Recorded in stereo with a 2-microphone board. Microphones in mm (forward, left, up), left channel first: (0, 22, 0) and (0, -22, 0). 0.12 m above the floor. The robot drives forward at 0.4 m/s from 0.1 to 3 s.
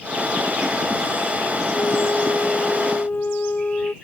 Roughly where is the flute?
Left.